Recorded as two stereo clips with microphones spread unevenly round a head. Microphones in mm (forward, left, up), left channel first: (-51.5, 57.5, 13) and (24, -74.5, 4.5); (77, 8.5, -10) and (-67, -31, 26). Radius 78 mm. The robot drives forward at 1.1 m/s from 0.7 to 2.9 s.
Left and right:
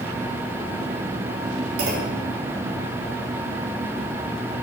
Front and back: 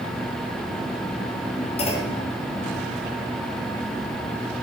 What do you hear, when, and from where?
1.8 s a clunk: 30° right, 2.5 m; by 2.2 s 35° right, 2 m